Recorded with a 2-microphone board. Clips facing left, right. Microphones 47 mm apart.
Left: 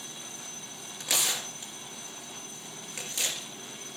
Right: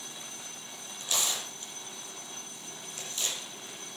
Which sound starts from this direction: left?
Tearing paper, at 1.0 s.